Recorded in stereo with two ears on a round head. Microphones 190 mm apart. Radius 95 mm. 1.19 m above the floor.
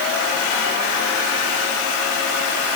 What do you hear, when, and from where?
Only background noise.